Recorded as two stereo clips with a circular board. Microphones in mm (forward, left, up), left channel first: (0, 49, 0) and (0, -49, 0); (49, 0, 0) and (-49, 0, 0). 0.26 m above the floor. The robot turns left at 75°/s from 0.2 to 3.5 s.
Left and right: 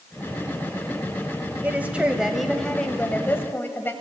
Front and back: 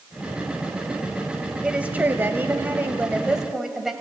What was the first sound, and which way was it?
A woman speaking, 120° right.